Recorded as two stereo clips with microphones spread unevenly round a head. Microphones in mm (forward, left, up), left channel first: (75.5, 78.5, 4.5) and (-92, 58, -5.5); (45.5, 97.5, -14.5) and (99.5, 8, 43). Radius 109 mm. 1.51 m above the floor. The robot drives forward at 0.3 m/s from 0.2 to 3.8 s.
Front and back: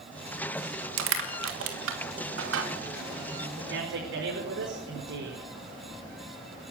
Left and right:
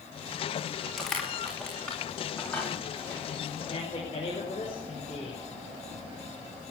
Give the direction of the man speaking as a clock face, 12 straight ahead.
6 o'clock.